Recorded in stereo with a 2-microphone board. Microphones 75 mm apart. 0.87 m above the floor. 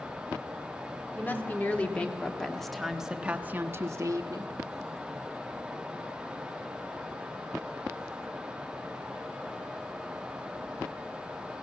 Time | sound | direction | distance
1.1 | a woman speaking | 25° left (ahead or behind) | 2 m